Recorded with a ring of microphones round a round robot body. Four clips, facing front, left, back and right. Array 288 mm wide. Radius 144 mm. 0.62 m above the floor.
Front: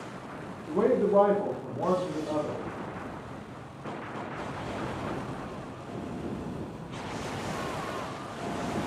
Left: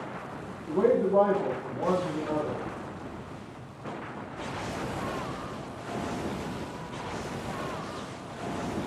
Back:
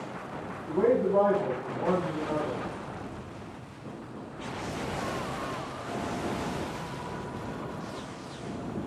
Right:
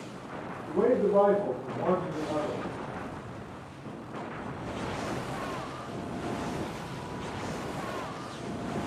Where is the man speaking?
Straight ahead, 0.7 m.